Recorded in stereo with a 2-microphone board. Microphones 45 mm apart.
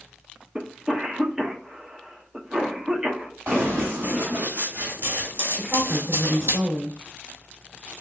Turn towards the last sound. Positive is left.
turn(degrees=-5)  # may be behind; listen again after turning